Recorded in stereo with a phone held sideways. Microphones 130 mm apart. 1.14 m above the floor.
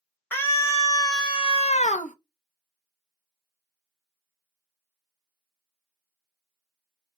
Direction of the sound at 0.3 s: 15° left (ahead or behind).